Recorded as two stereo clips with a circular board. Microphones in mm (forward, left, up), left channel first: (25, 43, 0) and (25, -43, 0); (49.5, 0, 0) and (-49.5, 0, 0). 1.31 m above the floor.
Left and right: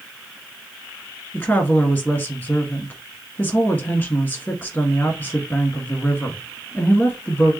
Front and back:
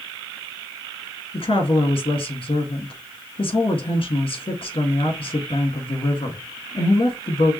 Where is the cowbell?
No cowbell in this recording.